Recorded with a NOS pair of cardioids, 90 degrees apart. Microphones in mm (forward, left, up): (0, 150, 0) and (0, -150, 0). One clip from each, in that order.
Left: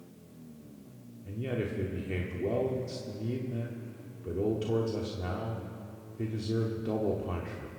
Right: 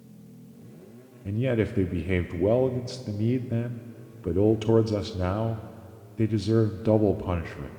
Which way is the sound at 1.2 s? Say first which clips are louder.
Right 8 dB; 45° right.